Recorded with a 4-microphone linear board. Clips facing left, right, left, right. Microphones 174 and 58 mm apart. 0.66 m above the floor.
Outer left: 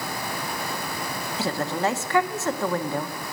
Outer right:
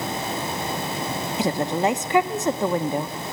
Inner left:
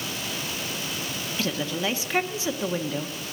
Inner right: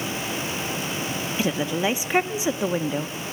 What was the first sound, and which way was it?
A woman speaking, 20° right (ahead or behind).